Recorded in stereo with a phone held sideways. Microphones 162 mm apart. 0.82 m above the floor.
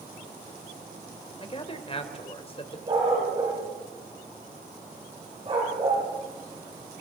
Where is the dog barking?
35° right (ahead or behind), 9 m.